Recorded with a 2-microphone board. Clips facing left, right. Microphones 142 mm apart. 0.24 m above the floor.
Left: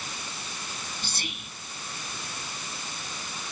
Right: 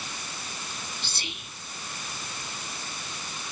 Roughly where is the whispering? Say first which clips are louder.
Left 2 dB; left.